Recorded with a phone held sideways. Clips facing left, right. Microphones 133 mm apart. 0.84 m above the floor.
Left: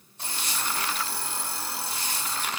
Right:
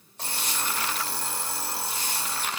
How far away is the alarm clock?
About 1.6 m.